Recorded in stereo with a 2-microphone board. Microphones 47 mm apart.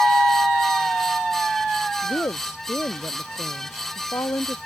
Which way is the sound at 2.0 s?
80° left.